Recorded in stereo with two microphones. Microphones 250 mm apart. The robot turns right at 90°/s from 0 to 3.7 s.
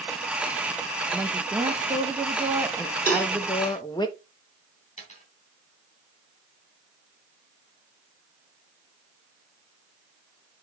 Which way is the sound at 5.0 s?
30° left (ahead or behind).